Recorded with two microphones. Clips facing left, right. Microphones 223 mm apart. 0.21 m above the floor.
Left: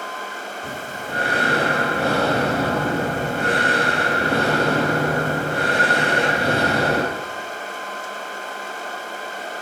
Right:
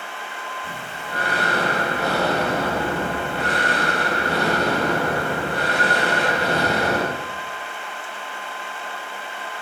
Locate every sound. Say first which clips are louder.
0.6 s breathing: left 4 dB; 50° left (ahead or behind), 5 m